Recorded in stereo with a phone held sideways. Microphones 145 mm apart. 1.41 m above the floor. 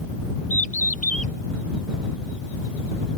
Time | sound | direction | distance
0.5 | a bird | 75° left (ahead or behind) | ?